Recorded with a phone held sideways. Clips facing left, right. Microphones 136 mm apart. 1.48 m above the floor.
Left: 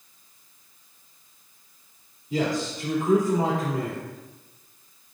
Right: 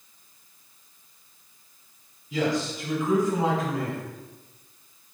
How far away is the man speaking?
About 2.5 m.